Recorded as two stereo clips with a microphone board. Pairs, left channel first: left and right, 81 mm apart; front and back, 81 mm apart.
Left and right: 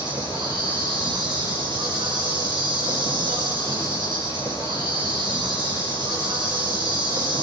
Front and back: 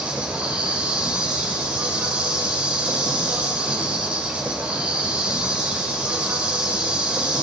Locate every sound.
0.0 s an insect: 105° right, 5.5 m